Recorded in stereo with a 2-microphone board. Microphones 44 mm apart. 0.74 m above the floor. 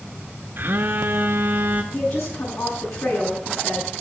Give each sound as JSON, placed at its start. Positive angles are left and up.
{"t": 0.6, "sound": "a phone buzzing", "side_deg": -50, "distance_m": 1.2}
{"t": 1.9, "sound": "a woman speaking", "side_deg": 70, "distance_m": 8.0}